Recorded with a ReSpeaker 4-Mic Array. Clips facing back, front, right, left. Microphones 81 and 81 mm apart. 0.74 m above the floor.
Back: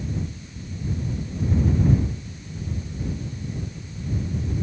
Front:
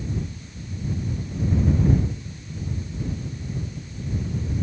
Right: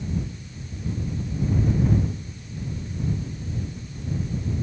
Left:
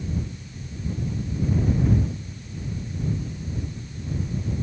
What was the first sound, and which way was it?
Only background noise.